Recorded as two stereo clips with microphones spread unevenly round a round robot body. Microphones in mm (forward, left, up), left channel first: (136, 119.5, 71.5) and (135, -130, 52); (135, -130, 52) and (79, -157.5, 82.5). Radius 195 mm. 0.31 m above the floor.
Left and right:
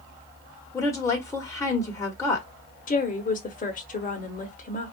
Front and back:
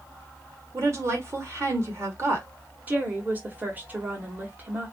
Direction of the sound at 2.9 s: 120° left.